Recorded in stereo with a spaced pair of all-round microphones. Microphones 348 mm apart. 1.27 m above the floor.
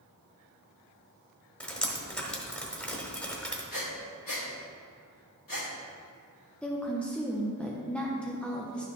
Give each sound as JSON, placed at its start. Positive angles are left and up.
{"t": 1.6, "sound": "dripping", "side_deg": 5, "distance_m": 1.3}
{"t": 3.7, "sound": "breathing", "side_deg": 70, "distance_m": 1.6}
{"t": 6.6, "sound": "a woman speaking", "side_deg": 5, "distance_m": 0.8}